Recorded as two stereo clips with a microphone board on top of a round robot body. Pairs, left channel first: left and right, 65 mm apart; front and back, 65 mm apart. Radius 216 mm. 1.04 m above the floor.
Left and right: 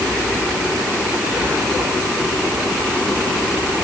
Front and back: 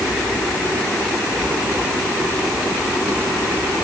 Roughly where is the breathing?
No breathing in this recording.